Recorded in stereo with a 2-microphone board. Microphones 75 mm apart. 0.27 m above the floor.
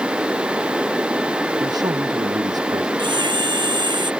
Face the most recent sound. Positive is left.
turn(degrees=-90)